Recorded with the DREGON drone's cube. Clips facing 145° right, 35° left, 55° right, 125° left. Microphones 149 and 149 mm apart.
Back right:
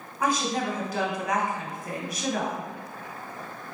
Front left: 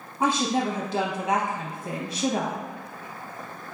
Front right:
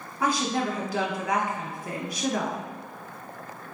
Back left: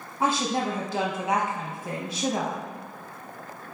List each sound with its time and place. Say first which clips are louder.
0.2 s a woman speaking: front left 3 dB, back left 1 dB; 80° left, 0.8 m